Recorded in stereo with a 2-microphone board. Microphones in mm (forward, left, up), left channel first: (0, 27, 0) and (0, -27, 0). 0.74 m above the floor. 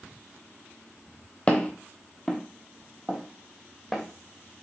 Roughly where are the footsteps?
Left.